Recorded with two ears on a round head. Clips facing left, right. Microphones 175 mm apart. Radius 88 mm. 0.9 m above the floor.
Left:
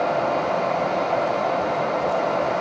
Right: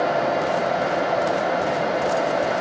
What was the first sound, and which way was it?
Only background noise.